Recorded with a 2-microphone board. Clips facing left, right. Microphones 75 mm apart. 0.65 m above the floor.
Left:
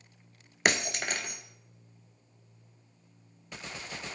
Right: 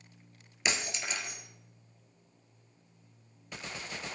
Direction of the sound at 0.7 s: 60° left (ahead or behind).